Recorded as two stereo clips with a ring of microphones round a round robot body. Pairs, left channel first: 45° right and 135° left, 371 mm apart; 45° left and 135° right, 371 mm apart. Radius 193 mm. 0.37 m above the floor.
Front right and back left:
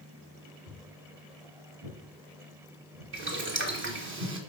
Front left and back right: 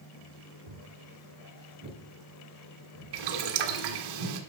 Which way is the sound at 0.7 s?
175° right.